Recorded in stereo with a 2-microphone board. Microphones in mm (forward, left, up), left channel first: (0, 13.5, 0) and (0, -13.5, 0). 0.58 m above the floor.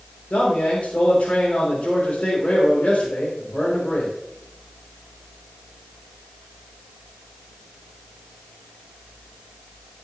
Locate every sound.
0.3 s a man speaking: 65° left (ahead or behind), 3.5 m